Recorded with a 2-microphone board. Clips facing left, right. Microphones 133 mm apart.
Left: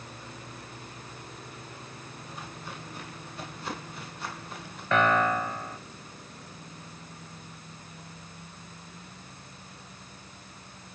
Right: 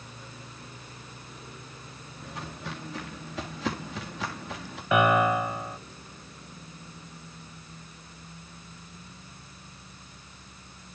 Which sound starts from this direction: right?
Footsteps, at 2.2 s.